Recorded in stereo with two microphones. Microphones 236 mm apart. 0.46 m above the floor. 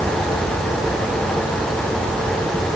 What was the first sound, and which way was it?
Only background noise.